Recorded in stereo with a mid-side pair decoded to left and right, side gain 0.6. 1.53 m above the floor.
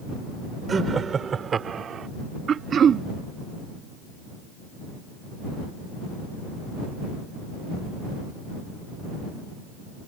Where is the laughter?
30° right; by 2.1 s 45° right.